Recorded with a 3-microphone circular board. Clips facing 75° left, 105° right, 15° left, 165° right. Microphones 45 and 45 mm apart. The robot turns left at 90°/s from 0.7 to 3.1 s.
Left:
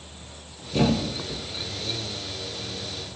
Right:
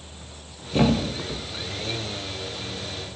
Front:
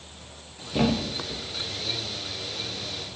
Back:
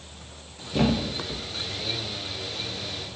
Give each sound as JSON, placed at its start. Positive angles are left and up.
{"t": 0.7, "sound": "a thud", "azimuth_deg": -60, "distance_m": 0.6}